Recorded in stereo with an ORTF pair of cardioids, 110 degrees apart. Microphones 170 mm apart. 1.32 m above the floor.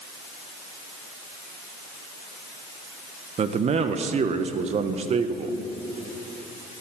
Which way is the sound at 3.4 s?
40° right.